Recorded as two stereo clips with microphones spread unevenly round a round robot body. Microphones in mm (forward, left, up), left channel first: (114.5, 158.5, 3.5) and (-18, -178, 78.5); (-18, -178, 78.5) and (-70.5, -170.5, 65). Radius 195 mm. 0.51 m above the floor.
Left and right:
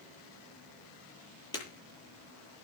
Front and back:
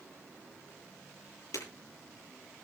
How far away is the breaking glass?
About 8.5 m.